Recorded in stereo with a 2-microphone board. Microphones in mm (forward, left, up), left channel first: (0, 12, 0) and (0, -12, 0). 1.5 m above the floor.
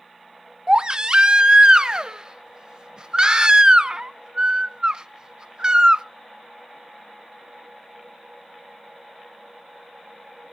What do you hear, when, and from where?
0.7 s a baby crying: 35° right (ahead or behind), 0.5 m